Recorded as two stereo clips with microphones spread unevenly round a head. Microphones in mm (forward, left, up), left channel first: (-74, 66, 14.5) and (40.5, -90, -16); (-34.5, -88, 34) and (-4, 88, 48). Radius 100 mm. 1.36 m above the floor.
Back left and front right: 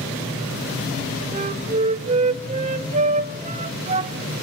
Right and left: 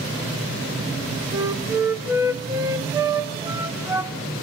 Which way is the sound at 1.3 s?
5° left.